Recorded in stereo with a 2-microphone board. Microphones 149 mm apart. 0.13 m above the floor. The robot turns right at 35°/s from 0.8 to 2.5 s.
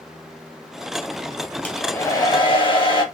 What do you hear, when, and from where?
1.6 s a hair dryer: 15° left, 1.1 m; by 3.0 s 45° left, 1.1 m